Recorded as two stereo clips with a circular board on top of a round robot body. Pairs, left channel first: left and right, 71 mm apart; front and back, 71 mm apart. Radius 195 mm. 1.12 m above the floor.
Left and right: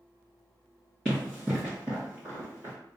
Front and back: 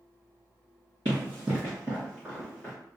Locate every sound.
1.1 s running footsteps: 170° left, 1.3 m; by 2.7 s 60° right, 1.2 m